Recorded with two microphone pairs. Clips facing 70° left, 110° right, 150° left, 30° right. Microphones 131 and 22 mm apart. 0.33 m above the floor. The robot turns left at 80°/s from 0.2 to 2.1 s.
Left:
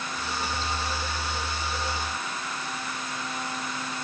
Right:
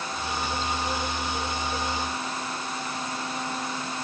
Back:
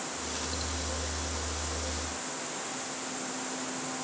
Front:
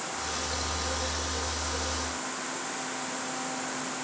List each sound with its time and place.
Only background noise.